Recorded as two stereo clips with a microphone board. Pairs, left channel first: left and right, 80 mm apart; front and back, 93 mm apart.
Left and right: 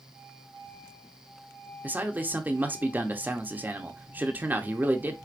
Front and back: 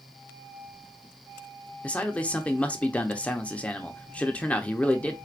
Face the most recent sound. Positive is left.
turn(degrees=-55)